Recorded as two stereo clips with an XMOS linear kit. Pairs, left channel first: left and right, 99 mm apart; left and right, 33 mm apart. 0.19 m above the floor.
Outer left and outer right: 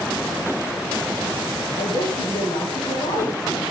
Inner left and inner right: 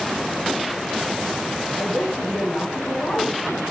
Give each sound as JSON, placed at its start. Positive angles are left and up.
{"t": 1.8, "sound": "a woman speaking", "side_deg": 75, "distance_m": 10.0}